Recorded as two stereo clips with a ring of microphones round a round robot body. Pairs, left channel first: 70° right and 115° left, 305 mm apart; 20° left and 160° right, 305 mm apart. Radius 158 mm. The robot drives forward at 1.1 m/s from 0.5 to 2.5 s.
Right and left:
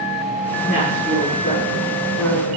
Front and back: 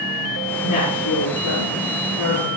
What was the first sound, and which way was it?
A woman speaking, 5° right.